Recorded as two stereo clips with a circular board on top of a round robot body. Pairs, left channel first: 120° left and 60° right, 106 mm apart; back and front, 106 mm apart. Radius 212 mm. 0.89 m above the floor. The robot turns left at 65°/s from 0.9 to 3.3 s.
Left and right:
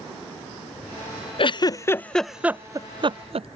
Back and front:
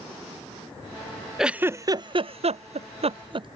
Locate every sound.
1.4 s a giggle: 85° left; by 3.5 s 35° right